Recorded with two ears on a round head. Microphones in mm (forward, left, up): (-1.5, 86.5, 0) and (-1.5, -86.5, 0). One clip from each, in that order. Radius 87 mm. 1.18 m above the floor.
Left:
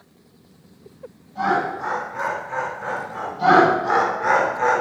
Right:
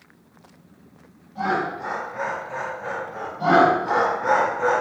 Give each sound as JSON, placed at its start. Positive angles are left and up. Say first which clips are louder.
{"t": 1.4, "sound": "laughter", "louder": "left 3 dB", "side_deg": 35, "distance_m": 1.7}
{"t": 3.4, "sound": "laughter", "louder": "left 2 dB", "side_deg": 75, "distance_m": 1.2}